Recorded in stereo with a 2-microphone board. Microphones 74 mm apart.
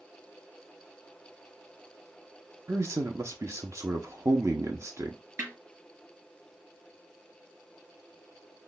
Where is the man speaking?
40° right (ahead or behind), 0.7 m.